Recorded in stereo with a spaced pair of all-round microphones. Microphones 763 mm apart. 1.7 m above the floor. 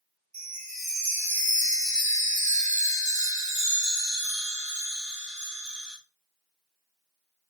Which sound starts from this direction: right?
A chime, at 0.3 s.